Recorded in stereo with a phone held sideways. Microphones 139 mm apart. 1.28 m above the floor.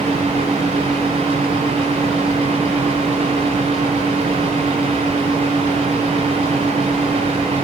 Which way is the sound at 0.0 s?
45° right (ahead or behind).